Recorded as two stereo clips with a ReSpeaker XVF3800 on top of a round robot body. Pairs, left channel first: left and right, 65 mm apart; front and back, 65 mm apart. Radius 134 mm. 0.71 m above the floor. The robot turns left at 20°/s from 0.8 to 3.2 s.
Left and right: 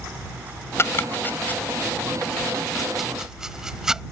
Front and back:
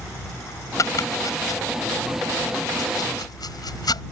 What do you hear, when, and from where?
0.8 s chopping: 40° left; by 4.0 s 10° right